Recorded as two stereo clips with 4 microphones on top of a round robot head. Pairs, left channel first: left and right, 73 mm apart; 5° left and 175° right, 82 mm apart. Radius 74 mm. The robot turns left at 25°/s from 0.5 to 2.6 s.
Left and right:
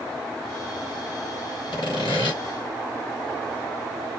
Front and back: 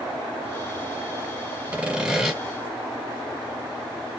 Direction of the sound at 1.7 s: 115° left.